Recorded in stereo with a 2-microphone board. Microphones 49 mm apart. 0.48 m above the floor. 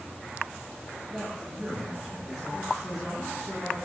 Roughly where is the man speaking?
Centre.